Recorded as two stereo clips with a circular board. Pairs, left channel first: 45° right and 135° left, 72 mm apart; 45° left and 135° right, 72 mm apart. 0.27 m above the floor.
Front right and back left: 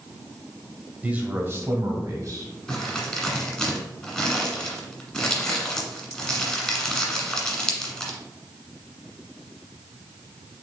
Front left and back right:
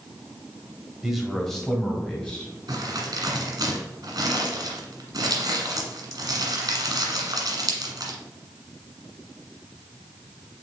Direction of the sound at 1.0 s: 155° left.